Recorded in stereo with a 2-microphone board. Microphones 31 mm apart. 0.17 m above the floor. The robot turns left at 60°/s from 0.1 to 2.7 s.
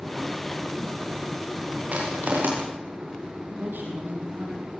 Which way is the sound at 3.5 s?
80° right.